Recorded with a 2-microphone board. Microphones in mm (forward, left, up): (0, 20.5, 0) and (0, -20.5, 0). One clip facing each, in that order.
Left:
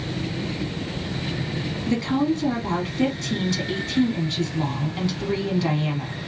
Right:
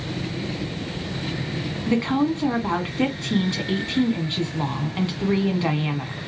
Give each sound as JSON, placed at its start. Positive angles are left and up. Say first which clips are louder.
{"t": 1.9, "sound": "a woman speaking", "louder": "right 1 dB", "side_deg": -25, "distance_m": 1.3}